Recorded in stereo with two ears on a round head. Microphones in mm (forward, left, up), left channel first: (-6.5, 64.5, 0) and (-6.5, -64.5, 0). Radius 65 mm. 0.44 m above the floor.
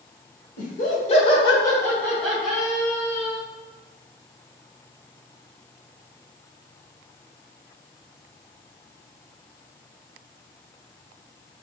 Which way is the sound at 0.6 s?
60° left (ahead or behind).